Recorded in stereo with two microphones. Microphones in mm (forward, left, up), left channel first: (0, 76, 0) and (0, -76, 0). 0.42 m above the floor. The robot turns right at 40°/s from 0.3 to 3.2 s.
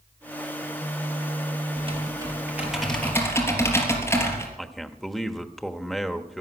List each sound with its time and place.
1.8 s typing on a keyboard: 40° right, 3.5 m; by 4.5 s 15° left, 3.5 m
4.6 s a man speaking: centre (ahead or behind), 1.1 m